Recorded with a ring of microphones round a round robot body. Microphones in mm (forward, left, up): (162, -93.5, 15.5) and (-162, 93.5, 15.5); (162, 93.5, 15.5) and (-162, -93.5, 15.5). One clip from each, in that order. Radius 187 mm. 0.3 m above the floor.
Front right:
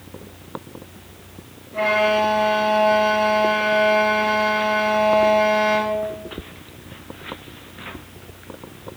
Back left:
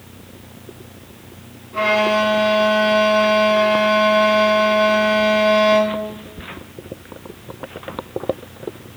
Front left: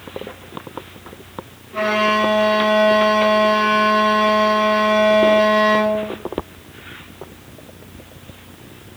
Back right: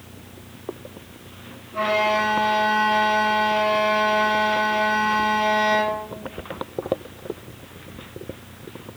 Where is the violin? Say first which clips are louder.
Back left 2 dB, front left 3 dB; 105° left, 3 m.